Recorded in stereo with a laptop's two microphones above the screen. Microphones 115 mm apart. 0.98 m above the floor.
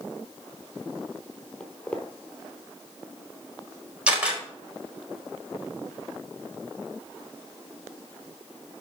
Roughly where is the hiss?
No hiss in this recording.